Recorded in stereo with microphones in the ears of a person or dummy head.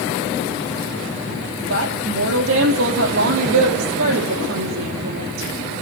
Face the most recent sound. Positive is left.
turn(degrees=-75)  # may be behind; listen again after turning